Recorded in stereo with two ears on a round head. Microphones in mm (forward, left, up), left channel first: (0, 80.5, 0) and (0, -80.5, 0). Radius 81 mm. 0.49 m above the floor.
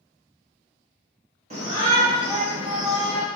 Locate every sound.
1.5 s a shout: 35° right (ahead or behind), 1.8 m; by 3.2 s 10° left (ahead or behind), 1.4 m